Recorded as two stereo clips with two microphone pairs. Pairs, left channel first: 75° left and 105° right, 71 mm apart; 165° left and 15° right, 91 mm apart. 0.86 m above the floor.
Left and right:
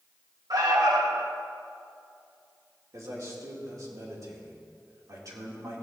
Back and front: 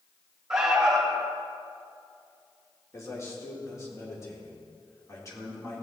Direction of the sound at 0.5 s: 100° right.